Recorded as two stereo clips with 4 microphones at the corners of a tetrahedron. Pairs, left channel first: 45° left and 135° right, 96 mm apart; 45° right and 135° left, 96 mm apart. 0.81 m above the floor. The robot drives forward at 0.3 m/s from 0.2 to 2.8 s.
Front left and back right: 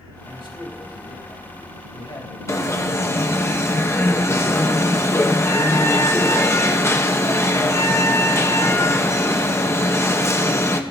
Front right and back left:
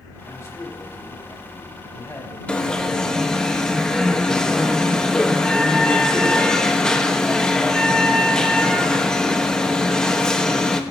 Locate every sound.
0.2 s a man speaking: 15° left, 4 m; by 3.5 s 20° left, 3 m
2.5 s an alarm: 25° left, 1.0 m